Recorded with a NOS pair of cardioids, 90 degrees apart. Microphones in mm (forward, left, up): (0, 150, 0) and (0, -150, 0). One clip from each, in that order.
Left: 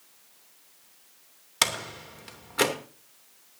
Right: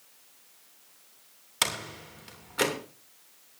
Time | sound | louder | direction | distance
1.6 | a door slam | left 3 dB | 20° left | 2.5 m